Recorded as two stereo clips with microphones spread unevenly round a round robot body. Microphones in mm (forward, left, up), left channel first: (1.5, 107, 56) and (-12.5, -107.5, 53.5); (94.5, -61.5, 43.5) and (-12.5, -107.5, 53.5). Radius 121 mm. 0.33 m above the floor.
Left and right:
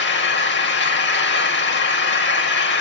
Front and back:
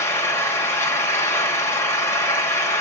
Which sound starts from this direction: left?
An engine running, at 0.0 s.